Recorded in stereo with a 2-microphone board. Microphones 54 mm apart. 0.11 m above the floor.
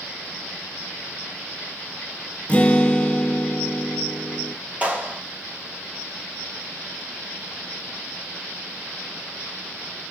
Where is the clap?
25° right (ahead or behind), 2 m.